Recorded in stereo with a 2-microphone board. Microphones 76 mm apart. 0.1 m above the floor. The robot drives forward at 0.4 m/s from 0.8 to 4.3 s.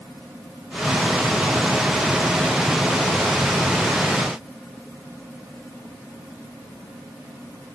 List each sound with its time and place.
Only background noise.